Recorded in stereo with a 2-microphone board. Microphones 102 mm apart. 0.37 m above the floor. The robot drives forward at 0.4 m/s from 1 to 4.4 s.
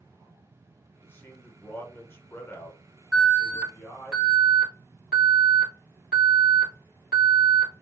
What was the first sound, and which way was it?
A man speaking, 20° left (ahead or behind).